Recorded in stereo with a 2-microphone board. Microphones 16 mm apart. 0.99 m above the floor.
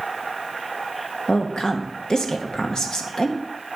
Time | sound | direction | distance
1.3 | a woman speaking | 50° left (ahead or behind) | 1.1 m